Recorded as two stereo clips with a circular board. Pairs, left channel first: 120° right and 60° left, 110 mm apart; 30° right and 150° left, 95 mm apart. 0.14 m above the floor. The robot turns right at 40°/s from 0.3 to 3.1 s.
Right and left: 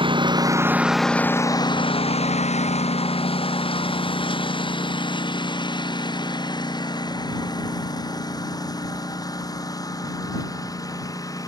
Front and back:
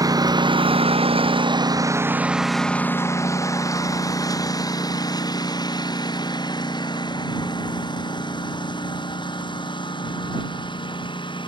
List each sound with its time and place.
0.0 s a lawn mower: 100° left; by 11.5 s 60° right